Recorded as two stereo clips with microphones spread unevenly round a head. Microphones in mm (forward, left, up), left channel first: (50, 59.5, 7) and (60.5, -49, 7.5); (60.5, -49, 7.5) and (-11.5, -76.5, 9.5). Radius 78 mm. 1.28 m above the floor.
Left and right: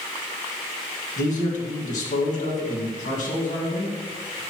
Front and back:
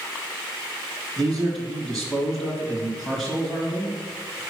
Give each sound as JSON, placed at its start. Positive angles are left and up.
{"t": 1.2, "sound": "a man speaking", "azimuth_deg": 105, "distance_m": 2.0}